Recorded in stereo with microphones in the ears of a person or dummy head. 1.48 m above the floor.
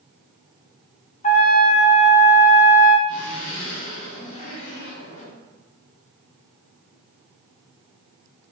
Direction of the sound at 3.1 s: 75° left (ahead or behind).